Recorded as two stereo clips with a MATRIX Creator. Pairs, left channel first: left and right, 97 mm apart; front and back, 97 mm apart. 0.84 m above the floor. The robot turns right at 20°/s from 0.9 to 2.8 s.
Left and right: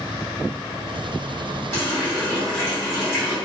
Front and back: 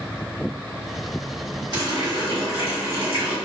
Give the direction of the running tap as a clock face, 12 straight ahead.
7 o'clock.